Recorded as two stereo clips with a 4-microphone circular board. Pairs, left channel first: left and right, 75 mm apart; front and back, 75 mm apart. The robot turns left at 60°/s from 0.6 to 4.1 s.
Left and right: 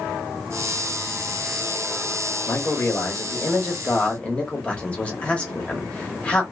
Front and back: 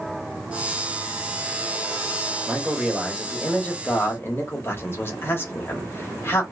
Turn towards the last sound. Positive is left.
turn(degrees=30)